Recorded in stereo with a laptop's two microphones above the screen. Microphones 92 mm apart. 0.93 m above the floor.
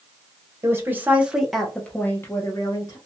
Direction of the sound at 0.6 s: 25° right (ahead or behind).